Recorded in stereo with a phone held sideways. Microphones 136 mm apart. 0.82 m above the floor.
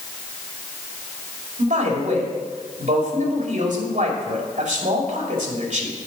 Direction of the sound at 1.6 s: 70° right (ahead or behind).